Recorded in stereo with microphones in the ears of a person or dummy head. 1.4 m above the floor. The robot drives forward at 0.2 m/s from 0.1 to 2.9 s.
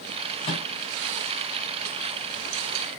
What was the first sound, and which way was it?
A microwave, 35° left (ahead or behind).